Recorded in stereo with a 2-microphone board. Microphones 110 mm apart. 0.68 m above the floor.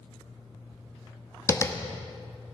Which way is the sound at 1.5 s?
25° left (ahead or behind).